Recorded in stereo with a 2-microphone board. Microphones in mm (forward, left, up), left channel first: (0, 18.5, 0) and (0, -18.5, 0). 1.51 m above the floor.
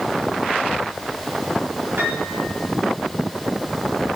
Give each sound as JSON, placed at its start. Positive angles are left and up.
{"t": 2.0, "sound": "a piano", "side_deg": -80, "distance_m": 3.0}